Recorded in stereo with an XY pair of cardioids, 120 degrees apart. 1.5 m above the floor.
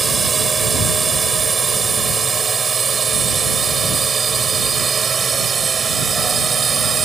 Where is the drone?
30° right; by 7.1 s 35° right.